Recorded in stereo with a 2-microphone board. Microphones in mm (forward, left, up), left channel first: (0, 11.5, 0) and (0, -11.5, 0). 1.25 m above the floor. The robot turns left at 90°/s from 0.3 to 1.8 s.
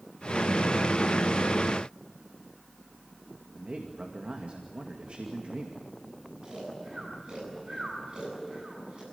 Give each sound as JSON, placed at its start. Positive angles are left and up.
{"t": 3.5, "sound": "a man speaking", "side_deg": -60, "distance_m": 2.0}
{"t": 6.4, "sound": "snoring", "side_deg": -40, "distance_m": 8.5}